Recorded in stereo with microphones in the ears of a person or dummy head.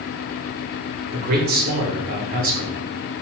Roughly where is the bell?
No bell in this recording.